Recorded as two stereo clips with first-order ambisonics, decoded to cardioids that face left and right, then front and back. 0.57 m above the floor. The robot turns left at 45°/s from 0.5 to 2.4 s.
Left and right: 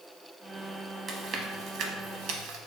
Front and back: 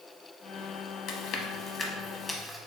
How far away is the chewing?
About 0.6 m.